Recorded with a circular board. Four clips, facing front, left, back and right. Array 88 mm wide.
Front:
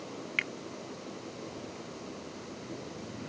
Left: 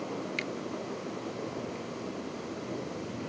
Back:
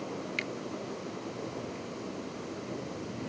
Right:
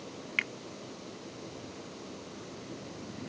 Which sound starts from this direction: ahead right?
A finger snap, at 0.4 s.